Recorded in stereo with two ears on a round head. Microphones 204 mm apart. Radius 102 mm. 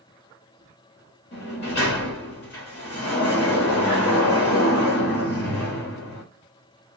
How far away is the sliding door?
About 1.6 m.